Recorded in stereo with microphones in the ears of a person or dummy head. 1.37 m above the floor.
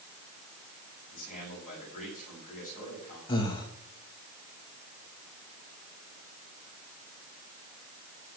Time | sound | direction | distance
1.1 | a man speaking | 45° left (ahead or behind) | 7.5 m
3.3 | breathing | 25° left (ahead or behind) | 2 m